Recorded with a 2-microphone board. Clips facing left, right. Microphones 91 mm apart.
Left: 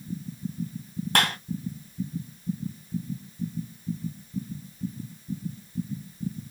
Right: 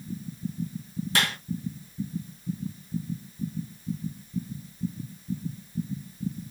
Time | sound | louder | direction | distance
1.1 | a clap | left 3 dB | 65° left (ahead or behind) | 2 m